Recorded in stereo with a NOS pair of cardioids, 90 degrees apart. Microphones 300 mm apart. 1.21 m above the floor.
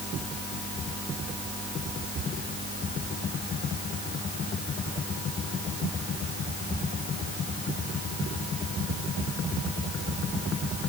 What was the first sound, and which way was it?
Only background noise.